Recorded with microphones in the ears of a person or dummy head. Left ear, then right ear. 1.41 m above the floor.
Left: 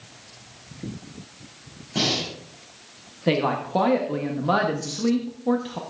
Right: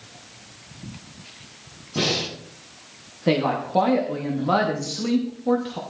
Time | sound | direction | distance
1.9 | breathing | 75° left (ahead or behind) | 7.5 m
3.3 | a woman speaking | 10° left (ahead or behind) | 1.0 m